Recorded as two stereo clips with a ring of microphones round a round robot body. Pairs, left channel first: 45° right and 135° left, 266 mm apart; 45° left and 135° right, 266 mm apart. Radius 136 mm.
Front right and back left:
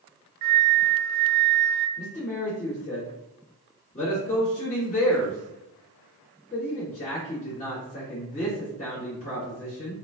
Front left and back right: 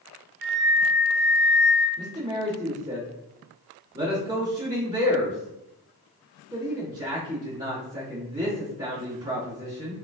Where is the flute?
Straight behind, 0.7 m.